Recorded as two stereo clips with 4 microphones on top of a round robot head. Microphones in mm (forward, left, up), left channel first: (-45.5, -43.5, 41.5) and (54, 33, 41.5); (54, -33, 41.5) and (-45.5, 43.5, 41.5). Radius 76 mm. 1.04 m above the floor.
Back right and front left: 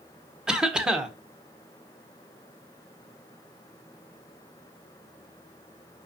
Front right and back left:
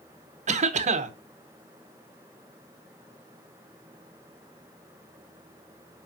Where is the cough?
120° left, 0.9 m.